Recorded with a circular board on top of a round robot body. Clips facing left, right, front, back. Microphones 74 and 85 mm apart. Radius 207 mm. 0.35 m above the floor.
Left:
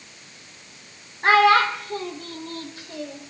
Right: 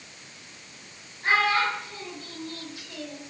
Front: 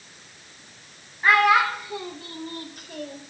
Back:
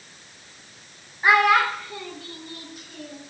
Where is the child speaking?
105° left, 1.3 m; by 3.2 s 25° left, 1.9 m.